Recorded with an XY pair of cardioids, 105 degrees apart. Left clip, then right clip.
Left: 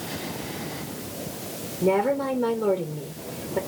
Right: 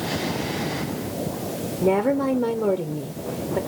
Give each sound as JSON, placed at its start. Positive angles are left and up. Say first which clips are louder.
{"t": 1.8, "sound": "a woman speaking", "louder": "right 1 dB", "azimuth_deg": -30, "distance_m": 0.7}